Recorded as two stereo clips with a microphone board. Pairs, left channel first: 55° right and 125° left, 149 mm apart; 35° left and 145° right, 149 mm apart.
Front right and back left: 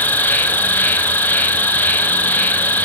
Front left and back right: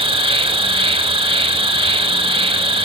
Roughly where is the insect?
Behind right.